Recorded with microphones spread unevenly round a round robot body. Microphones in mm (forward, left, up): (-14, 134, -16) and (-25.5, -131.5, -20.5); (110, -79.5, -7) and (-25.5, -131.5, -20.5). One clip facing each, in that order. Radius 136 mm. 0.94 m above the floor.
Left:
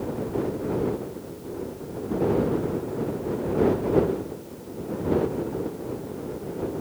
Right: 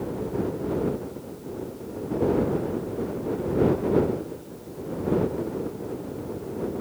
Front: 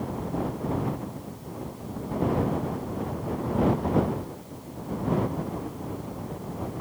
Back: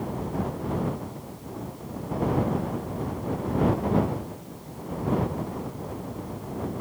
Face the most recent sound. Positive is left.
No sound to turn to.